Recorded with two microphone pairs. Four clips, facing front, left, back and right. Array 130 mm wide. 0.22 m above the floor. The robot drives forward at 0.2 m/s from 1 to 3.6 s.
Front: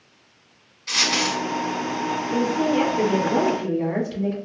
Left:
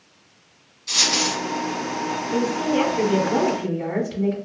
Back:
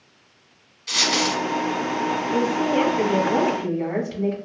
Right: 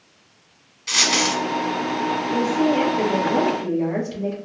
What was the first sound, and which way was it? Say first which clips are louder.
A dropped coin: right 3 dB, back 1 dB; 80° right.